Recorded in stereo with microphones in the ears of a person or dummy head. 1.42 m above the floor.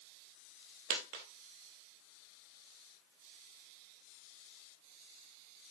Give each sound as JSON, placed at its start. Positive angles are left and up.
{"t": 0.9, "sound": "a dropped coin", "side_deg": -50, "distance_m": 2.0}